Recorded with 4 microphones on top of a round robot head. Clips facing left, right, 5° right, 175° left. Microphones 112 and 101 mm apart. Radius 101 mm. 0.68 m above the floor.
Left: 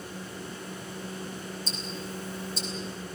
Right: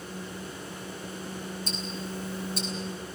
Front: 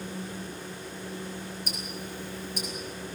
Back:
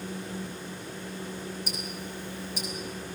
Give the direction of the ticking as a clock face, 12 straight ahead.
2 o'clock.